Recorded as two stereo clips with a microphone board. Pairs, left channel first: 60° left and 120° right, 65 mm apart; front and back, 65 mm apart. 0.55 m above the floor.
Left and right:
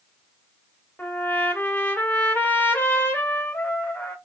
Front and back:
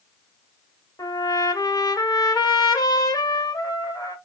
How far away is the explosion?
I don't hear an explosion.